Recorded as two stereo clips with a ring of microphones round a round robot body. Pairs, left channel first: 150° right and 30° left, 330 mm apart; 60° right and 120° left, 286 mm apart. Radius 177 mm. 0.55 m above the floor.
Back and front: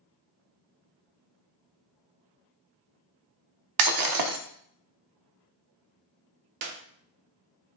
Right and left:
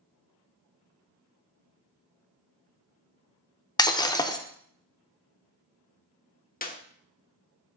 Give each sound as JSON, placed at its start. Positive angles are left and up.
{"t": 3.8, "sound": "breaking glass", "azimuth_deg": 15, "distance_m": 0.8}
{"t": 6.6, "sound": "a clap", "azimuth_deg": -5, "distance_m": 1.1}